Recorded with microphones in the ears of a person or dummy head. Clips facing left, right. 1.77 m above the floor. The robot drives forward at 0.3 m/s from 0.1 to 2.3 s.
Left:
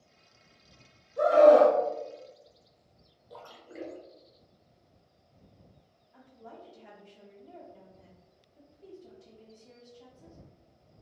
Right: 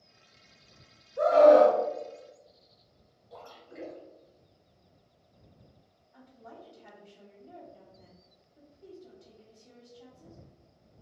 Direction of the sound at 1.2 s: 45° left (ahead or behind).